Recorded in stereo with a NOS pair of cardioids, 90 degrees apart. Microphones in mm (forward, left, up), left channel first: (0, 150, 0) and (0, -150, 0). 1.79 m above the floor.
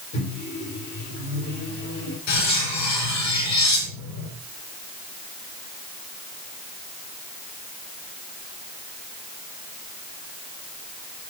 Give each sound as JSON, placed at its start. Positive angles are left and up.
{"t": 0.1, "sound": "a microwave", "azimuth_deg": 65, "distance_m": 3.0}
{"t": 2.3, "sound": "cutlery clinking", "azimuth_deg": 70, "distance_m": 5.5}